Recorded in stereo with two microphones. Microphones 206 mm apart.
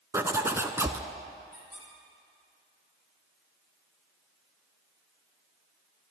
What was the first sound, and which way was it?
A zipper, 15° right (ahead or behind).